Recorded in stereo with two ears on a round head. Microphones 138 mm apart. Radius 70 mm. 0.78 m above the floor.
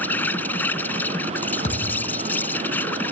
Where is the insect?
10° left (ahead or behind).